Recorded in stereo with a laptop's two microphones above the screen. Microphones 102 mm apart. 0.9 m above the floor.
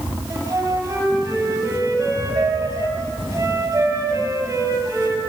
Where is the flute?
30° right (ahead or behind), 4.5 m.